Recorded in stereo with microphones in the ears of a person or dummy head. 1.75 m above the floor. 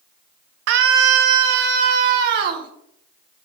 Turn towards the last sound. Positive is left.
turn(degrees=-50)  # may be behind; listen again after turning